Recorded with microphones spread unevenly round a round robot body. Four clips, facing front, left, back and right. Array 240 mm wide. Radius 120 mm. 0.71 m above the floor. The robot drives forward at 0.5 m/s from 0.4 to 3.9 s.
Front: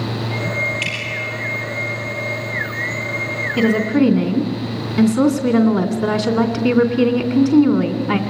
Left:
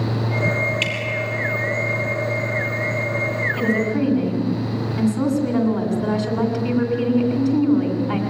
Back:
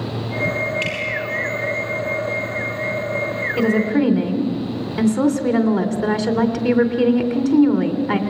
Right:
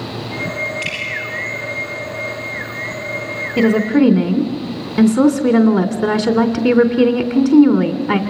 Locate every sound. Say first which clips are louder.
0.8 s dripping: left 1 dB, back 2 dB; 95° left, 5 m
3.6 s a woman speaking: right 9 dB, front 2 dB; 80° right, 3 m; by 8.2 s 85° right, 2.5 m